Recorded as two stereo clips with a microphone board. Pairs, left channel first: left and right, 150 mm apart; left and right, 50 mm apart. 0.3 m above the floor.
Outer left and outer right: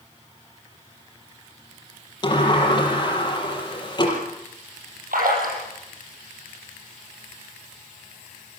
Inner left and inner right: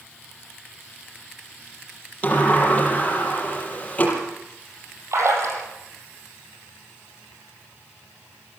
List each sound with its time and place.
2.2 s a sliding door: 30° left (ahead or behind), 6 m
5.1 s a splash: 80° right, 6.5 m